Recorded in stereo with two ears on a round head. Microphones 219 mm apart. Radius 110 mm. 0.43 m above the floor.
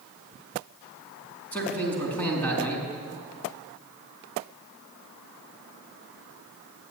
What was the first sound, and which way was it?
A man speaking, 5° left (ahead or behind).